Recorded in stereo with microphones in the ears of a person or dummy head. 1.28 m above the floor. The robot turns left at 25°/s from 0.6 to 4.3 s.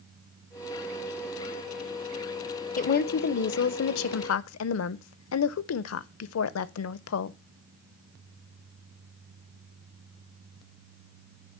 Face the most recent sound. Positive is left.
turn(degrees=95)